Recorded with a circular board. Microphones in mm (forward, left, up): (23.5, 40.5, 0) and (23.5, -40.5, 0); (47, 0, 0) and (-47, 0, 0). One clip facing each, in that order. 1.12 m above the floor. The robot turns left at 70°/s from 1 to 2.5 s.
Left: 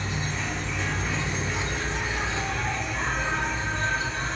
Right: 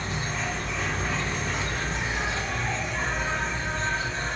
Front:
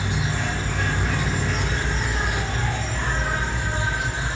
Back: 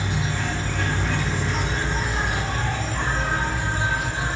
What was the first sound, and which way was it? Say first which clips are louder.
An insect: even, even; 70° right.